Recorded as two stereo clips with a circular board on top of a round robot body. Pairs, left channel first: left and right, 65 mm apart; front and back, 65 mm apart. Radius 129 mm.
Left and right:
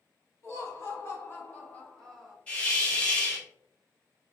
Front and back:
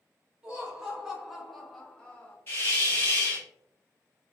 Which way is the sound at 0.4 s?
105° left.